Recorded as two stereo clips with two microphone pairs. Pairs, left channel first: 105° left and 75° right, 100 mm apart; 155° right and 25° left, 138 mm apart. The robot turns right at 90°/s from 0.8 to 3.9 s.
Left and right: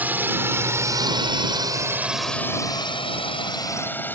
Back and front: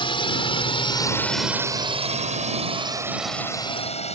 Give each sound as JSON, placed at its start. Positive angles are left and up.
{"t": 0.0, "sound": "a drone", "azimuth_deg": -140}